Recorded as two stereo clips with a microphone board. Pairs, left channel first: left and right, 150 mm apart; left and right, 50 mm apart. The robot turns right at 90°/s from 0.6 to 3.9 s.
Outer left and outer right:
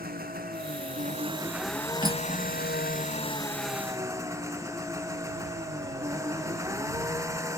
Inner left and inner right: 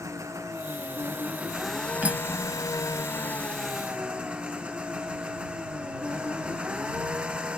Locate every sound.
0.0 s an engine running: 95° right; by 7.6 s 160° right
2.0 s cutlery clinking: 30° right (ahead or behind); by 2.5 s centre (ahead or behind)